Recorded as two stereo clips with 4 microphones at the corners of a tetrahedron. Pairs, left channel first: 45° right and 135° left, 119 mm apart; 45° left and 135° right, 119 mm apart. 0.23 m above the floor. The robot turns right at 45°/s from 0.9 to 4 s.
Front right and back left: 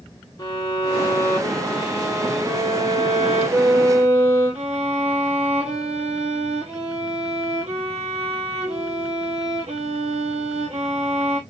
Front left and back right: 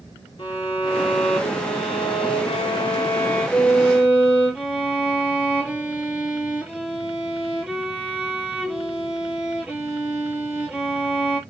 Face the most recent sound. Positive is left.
turn(degrees=150)